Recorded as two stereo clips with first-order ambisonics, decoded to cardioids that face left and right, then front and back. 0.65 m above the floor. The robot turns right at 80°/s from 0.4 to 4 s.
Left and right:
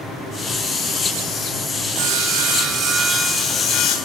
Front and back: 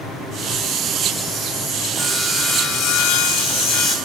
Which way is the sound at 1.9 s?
110° right.